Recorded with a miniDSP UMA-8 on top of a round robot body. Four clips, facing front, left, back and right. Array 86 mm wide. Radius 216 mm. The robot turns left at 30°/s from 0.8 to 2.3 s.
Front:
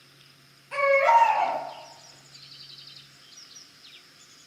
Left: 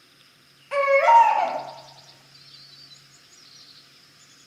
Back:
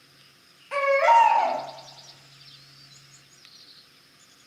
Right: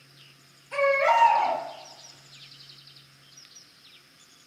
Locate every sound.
0.7 s a baby crying: 120° left, 0.6 m; by 1.6 s 95° left, 0.6 m